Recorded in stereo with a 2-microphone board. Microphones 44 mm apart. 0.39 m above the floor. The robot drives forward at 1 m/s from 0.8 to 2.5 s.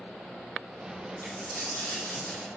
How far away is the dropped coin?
About 4.5 m.